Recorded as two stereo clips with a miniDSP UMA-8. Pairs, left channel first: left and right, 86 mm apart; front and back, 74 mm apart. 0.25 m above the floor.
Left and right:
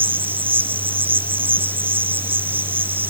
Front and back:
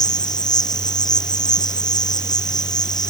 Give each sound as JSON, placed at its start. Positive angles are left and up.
{"t": 0.0, "sound": "an insect", "azimuth_deg": -20}